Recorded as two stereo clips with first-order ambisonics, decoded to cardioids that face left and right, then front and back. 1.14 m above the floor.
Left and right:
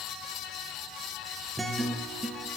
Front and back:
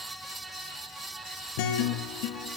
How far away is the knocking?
No knocking in this recording.